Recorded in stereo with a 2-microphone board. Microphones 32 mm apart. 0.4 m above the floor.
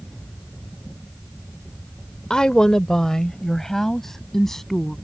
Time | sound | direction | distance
2.3 | a woman speaking | 25° left (ahead or behind) | ?